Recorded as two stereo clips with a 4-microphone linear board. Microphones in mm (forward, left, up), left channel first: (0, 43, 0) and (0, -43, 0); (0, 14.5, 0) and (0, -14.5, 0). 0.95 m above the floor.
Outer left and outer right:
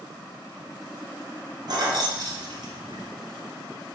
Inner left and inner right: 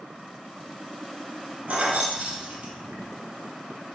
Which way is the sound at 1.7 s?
55° right (ahead or behind).